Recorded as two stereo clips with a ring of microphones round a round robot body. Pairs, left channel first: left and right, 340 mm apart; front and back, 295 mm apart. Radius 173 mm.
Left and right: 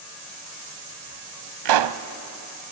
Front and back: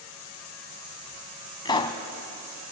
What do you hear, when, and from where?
1.6 s a pop: 75° right, 0.9 m